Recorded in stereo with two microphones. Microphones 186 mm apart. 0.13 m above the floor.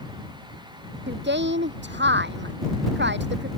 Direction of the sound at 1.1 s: 75° right (ahead or behind).